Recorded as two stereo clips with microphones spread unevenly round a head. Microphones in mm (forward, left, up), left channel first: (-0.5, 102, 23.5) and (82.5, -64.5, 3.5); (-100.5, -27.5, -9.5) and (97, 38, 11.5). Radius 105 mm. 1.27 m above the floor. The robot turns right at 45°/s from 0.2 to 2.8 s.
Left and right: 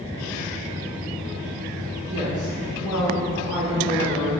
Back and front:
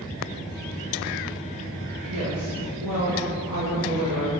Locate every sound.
2.1 s a woman speaking: 10° right, 1.9 m; by 4.3 s 25° left, 1.9 m